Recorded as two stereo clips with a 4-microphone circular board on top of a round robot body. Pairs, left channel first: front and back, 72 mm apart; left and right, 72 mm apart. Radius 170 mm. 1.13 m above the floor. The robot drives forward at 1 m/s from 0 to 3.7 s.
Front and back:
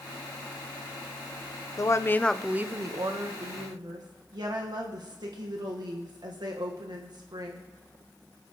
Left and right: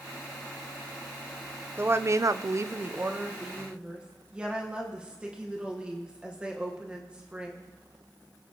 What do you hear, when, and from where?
1.8 s a woman speaking: 30° right, 0.9 m; by 7.6 s 165° right, 1.5 m